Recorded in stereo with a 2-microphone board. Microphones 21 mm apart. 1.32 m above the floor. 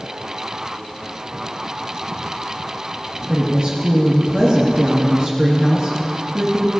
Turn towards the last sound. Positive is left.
turn(degrees=-45)  # may be behind; listen again after turning